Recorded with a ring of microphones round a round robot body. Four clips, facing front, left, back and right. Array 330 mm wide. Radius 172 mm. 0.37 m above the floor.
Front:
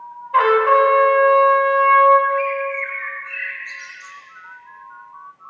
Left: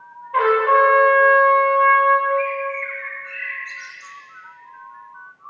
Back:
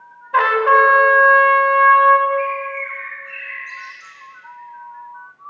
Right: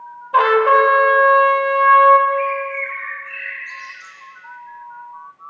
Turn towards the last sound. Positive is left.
turn(degrees=45)